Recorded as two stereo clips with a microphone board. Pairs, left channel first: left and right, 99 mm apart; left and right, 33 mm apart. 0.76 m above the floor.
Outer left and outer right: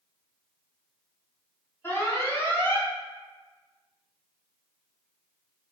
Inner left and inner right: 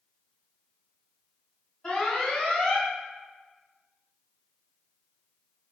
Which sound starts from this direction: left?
An alarm, at 1.8 s.